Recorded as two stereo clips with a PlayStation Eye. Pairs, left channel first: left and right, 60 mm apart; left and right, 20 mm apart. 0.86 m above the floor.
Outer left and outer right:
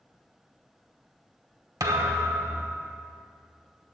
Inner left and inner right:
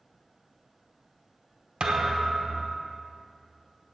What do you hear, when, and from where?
1.8 s a thud: 75° right (ahead or behind), 1.1 m